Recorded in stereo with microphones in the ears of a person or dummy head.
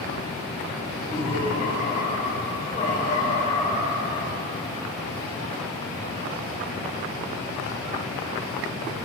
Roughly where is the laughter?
Left.